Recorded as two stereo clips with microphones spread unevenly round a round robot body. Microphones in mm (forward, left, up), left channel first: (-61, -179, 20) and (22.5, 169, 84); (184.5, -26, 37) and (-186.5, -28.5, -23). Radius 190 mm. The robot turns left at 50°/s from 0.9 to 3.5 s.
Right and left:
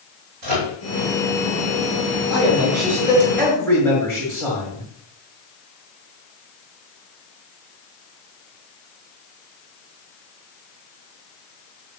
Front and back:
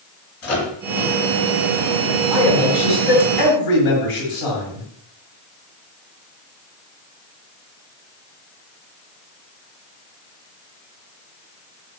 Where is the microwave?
55° left, 3.5 m.